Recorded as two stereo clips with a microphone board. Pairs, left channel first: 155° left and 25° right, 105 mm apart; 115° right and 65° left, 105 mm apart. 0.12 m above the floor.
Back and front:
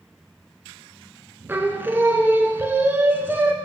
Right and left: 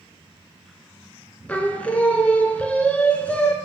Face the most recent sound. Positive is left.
turn(degrees=-60)